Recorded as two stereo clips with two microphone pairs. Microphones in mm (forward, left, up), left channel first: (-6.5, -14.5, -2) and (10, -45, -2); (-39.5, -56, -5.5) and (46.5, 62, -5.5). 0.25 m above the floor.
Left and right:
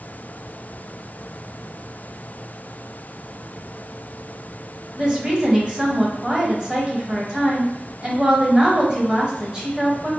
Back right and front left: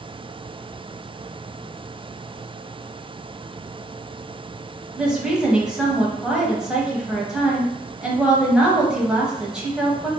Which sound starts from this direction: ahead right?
A woman speaking, at 5.0 s.